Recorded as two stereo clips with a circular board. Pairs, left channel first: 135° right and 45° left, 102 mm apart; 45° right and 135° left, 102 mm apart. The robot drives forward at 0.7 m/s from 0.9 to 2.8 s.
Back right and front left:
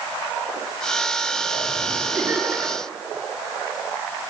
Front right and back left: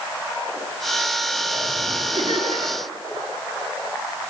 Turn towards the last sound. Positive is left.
turn(degrees=120)